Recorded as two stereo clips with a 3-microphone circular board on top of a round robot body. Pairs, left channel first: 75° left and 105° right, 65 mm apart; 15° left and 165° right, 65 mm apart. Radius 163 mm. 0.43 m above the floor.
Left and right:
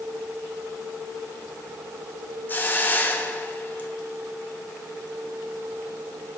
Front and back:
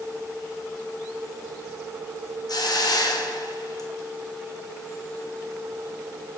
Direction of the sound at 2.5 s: 15° left.